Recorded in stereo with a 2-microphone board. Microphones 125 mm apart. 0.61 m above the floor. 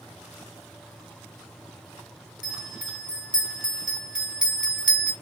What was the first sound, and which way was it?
A bell, 10° right (ahead or behind).